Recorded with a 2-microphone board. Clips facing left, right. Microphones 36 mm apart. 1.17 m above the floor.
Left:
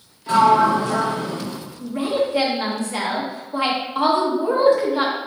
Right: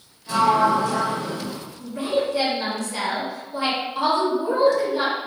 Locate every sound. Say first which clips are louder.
0.3 s a sliding door: left 3 dB; 40° left (ahead or behind), 1.1 m
1.8 s a woman speaking: left 2 dB; 30° left (ahead or behind), 1.2 m